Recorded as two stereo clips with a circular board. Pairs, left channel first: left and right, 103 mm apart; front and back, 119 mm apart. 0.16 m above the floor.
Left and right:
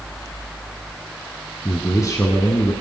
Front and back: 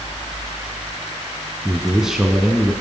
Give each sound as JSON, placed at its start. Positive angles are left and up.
{"t": 1.6, "sound": "a man speaking", "azimuth_deg": 100, "distance_m": 1.5}